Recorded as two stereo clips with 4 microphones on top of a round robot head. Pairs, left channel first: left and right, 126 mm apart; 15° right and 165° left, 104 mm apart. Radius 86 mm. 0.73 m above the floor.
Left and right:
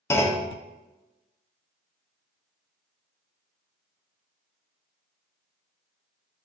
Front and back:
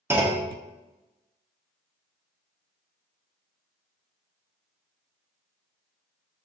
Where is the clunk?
130° left, 0.8 m.